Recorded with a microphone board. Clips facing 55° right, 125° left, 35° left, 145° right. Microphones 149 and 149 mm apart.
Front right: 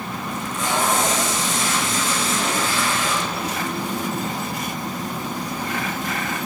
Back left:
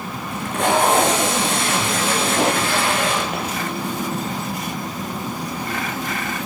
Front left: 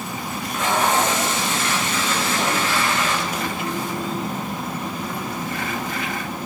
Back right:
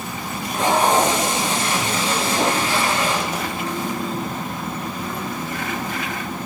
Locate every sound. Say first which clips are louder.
0.3 s tape being pulled: back left 6 dB, back right 4 dB; 155° left, 5.5 m